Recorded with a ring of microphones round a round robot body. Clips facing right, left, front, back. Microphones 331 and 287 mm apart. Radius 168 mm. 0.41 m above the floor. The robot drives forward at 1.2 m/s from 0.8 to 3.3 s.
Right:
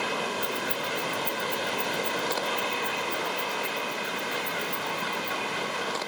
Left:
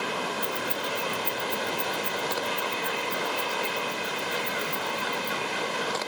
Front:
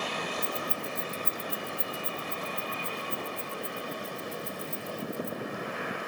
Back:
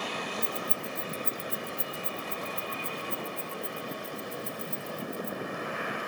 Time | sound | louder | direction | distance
0.4 | keys jangling | even, front 1 dB | 70° left | 1.4 m